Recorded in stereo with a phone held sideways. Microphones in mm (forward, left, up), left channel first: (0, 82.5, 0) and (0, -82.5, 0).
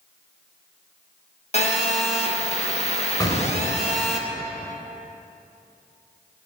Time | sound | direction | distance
1.5 | a phone buzzing | 40° left (ahead or behind) | 1.5 m
3.2 | an explosion | 25° left (ahead or behind) | 2.5 m